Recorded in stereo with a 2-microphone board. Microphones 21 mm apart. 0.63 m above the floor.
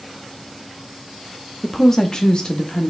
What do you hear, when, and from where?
1.6 s a woman speaking: 15° left (ahead or behind), 0.7 m; by 2.9 s 45° left (ahead or behind), 1.3 m